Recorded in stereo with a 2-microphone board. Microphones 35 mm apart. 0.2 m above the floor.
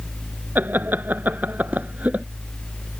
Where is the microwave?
No microwave in this recording.